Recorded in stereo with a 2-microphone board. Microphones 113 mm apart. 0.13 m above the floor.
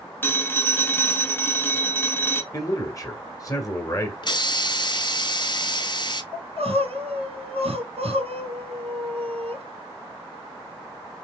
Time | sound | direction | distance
0.2 | a phone ringing | 20° left (ahead or behind) | 0.7 m
2.5 | a man speaking | 35° left (ahead or behind) | 1.6 m
4.2 | a hiss | 45° left (ahead or behind) | 0.5 m
6.3 | crying | 70° right (ahead or behind) | 1.4 m